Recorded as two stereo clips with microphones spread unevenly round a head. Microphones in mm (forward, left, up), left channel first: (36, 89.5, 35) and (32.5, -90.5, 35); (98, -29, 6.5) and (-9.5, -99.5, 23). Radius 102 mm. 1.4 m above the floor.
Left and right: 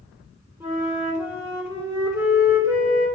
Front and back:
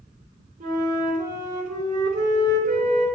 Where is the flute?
165° right, 2.5 m.